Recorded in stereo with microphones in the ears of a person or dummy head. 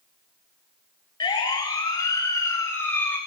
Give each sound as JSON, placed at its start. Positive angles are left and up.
{"t": 1.2, "sound": "a siren", "side_deg": 30, "distance_m": 4.0}